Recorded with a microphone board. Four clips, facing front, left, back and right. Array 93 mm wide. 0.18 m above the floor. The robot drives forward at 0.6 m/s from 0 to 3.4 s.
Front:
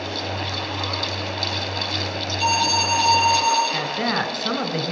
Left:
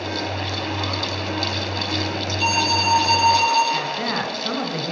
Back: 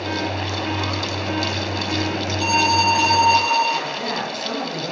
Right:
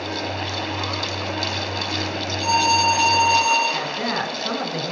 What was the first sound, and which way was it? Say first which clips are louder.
An alarm: right 3 dB, back 3 dB; 115° left.